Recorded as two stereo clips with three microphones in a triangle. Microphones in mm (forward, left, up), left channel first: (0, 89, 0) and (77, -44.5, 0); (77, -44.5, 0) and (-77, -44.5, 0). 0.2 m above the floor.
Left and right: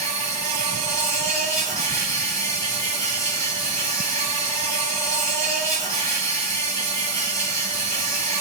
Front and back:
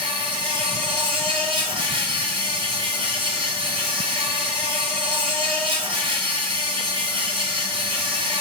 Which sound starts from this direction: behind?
An insect, at 0.0 s.